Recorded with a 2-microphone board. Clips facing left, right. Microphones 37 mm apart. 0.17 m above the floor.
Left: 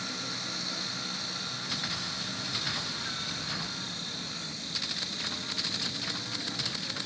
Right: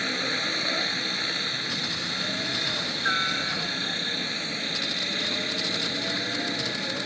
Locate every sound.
0.0 s a helicopter: 50° right (ahead or behind)